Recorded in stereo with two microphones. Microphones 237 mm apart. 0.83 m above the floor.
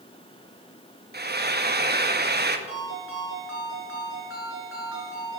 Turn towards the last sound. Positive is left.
turn(degrees=60)  # may be behind; listen again after turning